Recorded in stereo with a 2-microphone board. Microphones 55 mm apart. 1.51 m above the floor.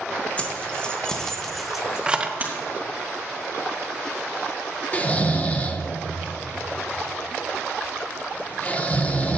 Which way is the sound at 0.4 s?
25° left (ahead or behind).